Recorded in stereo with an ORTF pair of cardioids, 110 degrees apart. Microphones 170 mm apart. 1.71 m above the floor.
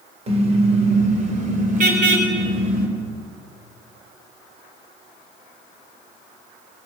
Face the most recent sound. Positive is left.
turn(degrees=-60)